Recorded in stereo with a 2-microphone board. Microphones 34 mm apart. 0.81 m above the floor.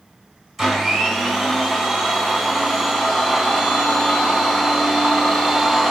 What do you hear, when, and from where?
0.6 s a blender: centre (ahead or behind), 4 m